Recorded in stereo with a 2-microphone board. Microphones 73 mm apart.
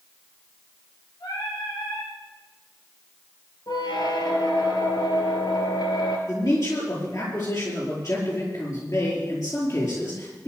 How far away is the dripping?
I don't hear dripping.